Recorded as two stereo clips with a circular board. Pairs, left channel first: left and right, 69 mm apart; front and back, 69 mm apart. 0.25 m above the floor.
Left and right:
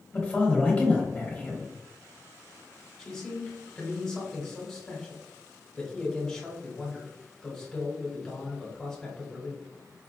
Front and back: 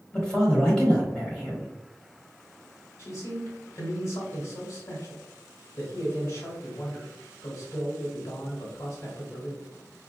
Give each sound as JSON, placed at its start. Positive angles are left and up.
{"t": 0.1, "sound": "a man speaking", "azimuth_deg": 55, "distance_m": 1.3}
{"t": 3.0, "sound": "a man speaking", "azimuth_deg": 15, "distance_m": 1.3}